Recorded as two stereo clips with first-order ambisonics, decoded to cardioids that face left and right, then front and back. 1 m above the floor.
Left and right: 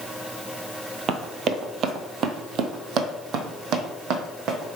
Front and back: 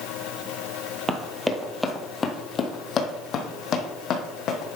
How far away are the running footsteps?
About 1.1 m.